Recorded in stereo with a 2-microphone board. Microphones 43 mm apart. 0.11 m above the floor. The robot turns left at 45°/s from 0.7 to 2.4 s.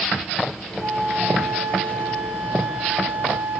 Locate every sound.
0.8 s a flute: 70° right, 2 m; by 3.6 s 140° right, 2 m